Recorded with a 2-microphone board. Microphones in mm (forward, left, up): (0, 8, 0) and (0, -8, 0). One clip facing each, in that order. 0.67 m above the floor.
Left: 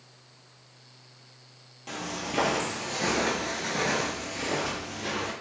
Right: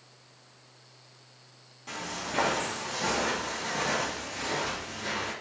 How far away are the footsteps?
About 1.2 m.